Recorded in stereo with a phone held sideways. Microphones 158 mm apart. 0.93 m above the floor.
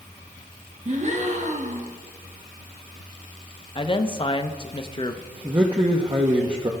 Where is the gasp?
50° right (ahead or behind), 1.1 m.